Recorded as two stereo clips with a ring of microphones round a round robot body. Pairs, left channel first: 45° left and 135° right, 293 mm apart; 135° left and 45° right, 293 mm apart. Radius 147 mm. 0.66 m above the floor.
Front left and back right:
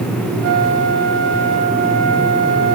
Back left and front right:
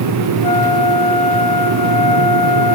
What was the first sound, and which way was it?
A flute, 160° right.